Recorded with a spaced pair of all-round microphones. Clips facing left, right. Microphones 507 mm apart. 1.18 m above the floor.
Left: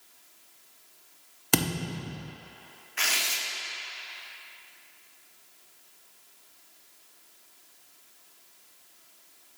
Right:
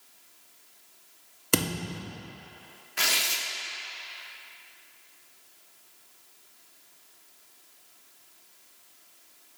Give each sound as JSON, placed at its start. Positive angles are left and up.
{"t": 1.5, "sound": "a thud", "side_deg": 10, "distance_m": 0.5}
{"t": 3.0, "sound": "tearing paper", "side_deg": -60, "distance_m": 0.6}